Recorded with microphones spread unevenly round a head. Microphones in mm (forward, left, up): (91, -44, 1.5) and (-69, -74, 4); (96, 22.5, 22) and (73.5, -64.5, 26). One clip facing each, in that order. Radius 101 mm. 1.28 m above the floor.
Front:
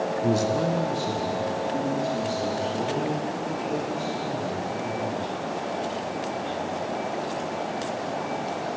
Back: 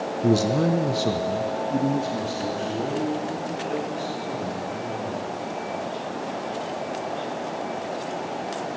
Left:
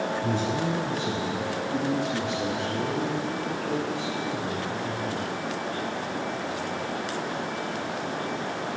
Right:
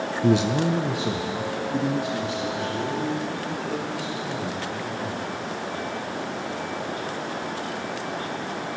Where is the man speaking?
105° right, 0.6 m; by 5.2 s 155° left, 4.5 m.